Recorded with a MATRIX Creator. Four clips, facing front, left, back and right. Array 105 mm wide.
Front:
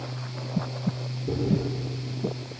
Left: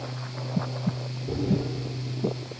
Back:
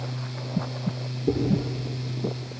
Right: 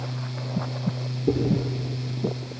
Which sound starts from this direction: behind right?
Chewing, at 1.3 s.